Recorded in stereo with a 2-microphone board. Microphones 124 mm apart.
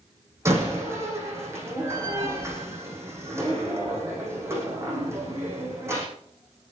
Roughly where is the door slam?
Right.